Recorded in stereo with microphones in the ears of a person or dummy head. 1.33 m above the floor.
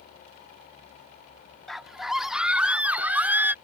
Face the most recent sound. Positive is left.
turn(degrees=-15)  # may be behind; listen again after turning